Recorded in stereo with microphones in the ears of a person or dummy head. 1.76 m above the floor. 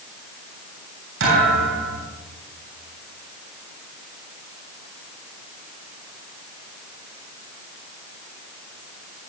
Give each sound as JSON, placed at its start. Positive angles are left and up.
{"t": 1.2, "sound": "a thud", "side_deg": -75, "distance_m": 10.0}